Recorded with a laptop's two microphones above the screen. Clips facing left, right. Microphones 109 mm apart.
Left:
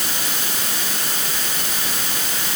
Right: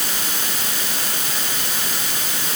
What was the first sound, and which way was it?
Only background noise.